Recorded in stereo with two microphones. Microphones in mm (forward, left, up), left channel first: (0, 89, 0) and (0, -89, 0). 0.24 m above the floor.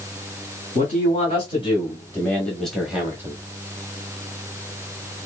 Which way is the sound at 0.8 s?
40° left (ahead or behind).